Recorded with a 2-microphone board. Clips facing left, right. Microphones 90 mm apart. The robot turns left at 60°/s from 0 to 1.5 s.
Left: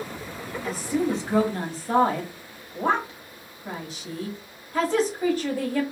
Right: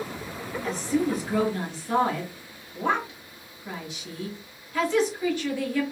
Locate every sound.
0.6 s a woman speaking: 175° left, 0.9 m; by 5.8 s 125° left, 0.9 m